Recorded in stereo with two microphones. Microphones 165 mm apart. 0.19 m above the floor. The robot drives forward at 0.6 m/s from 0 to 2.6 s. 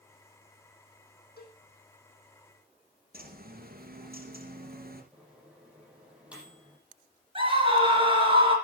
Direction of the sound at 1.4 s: 70° left (ahead or behind).